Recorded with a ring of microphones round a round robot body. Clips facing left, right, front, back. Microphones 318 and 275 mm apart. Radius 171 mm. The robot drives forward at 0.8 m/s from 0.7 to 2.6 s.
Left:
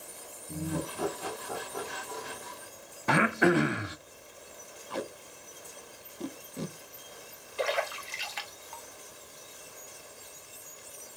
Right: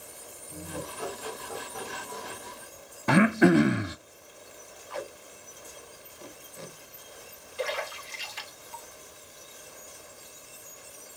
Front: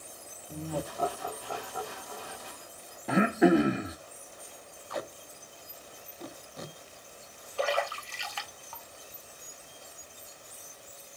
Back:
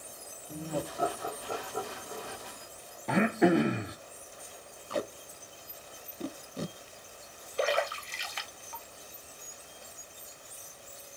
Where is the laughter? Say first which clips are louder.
Left 5 dB, even; 95° left, 1.8 m; by 2.5 s 135° left, 2.5 m.